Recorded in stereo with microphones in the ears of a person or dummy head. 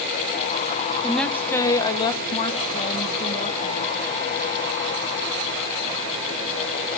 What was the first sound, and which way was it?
A woman speaking, 5° right (ahead or behind).